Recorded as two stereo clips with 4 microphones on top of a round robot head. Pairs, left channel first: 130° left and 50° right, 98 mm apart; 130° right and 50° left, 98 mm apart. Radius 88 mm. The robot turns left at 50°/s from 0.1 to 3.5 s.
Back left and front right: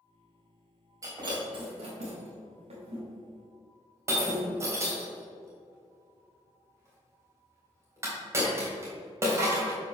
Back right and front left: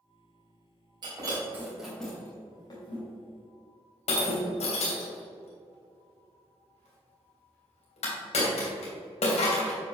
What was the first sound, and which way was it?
Breaking glass, 5° left.